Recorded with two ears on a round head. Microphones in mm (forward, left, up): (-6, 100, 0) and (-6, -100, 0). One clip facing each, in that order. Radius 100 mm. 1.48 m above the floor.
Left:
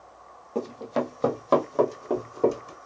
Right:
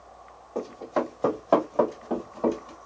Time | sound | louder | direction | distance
0.6 | running footsteps | left 1 dB | 40° left (ahead or behind) | 1.8 m